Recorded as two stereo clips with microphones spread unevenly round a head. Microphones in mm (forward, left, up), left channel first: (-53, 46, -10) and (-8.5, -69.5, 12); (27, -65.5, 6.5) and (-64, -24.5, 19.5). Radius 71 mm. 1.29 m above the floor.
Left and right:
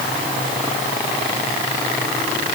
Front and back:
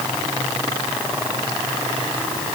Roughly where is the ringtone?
No ringtone in this recording.